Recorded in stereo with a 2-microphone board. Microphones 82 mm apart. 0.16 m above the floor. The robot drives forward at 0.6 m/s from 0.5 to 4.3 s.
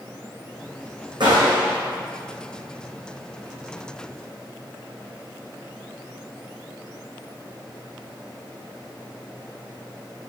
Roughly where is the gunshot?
Right.